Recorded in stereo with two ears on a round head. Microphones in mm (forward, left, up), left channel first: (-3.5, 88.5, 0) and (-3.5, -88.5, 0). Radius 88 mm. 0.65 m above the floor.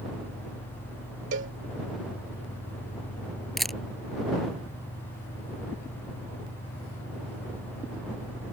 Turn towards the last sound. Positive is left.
turn(degrees=0)  # may be behind; listen again after turning